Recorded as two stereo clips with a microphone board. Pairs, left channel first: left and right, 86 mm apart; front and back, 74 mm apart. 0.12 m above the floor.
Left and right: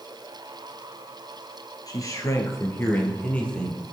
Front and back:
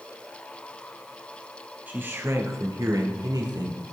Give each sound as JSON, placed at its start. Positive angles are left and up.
{"t": 1.9, "sound": "a man speaking", "azimuth_deg": 115, "distance_m": 2.5}